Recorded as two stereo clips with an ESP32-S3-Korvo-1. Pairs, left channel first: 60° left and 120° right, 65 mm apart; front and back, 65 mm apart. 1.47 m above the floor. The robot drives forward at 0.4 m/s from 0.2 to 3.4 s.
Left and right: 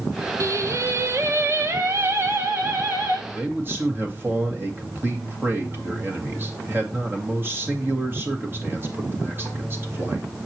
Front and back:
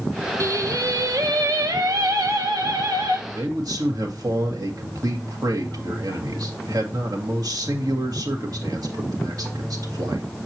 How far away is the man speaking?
About 1.7 m.